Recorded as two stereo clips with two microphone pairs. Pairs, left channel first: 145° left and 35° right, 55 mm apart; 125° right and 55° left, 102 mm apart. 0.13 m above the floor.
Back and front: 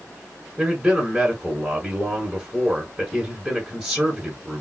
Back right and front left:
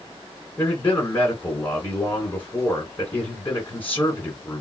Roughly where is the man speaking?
Right.